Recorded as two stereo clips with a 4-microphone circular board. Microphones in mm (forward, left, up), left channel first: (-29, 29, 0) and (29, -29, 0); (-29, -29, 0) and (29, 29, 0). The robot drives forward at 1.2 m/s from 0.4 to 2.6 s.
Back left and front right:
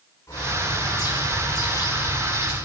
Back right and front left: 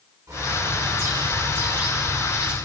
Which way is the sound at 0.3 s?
85° left.